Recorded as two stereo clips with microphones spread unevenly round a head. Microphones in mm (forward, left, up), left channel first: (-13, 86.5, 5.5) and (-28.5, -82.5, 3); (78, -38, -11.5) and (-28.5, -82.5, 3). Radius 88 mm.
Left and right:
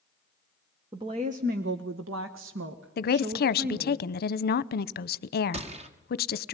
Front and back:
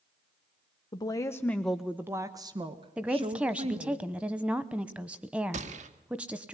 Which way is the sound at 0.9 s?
25° right.